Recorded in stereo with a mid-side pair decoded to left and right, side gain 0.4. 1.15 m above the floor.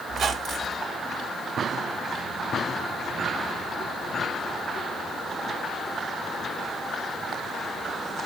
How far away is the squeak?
About 1.4 m.